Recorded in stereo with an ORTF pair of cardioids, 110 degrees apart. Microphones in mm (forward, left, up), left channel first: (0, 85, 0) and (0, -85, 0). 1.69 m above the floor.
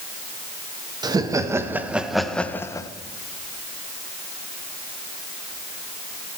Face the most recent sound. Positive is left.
turn(degrees=25)